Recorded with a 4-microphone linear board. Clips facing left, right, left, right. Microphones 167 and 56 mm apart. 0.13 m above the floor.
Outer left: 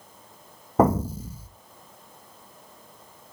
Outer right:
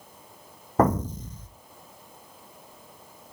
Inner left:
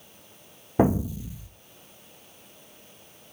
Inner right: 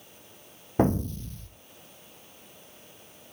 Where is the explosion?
10° left (ahead or behind), 0.9 m.